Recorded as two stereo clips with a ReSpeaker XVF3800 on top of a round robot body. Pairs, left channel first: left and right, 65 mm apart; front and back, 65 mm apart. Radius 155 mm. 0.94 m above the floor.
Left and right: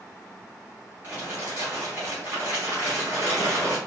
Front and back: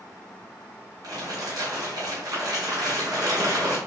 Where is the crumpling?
155° right, 0.9 m.